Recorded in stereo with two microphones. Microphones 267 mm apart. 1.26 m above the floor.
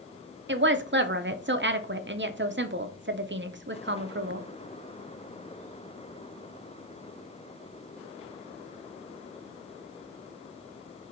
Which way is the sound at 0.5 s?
45° right (ahead or behind).